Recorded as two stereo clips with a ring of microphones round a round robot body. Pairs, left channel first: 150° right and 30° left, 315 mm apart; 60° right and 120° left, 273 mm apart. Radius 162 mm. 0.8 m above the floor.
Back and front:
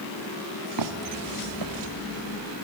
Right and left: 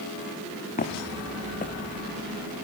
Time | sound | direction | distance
0.8 | footsteps | straight ahead | 3 m